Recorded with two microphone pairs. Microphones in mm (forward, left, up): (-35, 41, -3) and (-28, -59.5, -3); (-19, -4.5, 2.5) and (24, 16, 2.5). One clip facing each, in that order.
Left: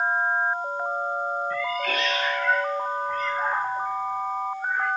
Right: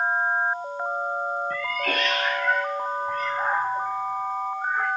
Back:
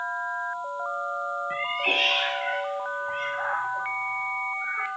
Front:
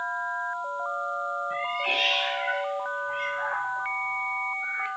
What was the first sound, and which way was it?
A cat meowing, 110° right.